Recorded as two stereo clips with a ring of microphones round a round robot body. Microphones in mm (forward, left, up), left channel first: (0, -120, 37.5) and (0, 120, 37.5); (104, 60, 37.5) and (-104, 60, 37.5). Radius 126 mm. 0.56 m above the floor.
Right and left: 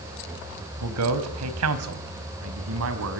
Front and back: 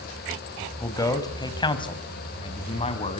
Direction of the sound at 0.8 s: 75° left.